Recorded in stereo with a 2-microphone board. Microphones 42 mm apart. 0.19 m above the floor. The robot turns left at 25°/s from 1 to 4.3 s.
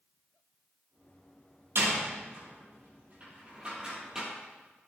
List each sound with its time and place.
1.8 s a door slam: 70° right (ahead or behind), 4.5 m; by 4.3 s 10° right (ahead or behind), 4.5 m